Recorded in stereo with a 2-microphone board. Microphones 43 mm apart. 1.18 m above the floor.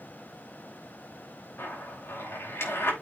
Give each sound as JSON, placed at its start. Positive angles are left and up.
{"t": 1.6, "sound": "a zipper", "side_deg": 75, "distance_m": 6.0}